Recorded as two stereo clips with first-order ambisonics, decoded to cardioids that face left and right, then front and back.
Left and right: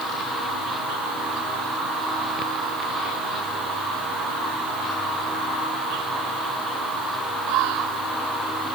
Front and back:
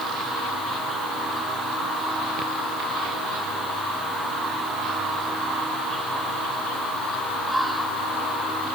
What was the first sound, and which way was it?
Only background noise.